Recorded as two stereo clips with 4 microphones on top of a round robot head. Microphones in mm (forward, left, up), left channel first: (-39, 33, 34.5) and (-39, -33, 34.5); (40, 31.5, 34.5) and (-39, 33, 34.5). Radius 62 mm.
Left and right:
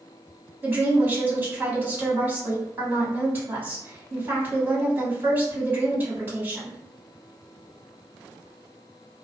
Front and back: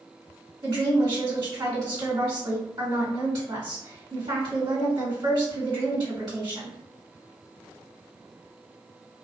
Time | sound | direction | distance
0.6 | a woman speaking | 150° right | 1.6 m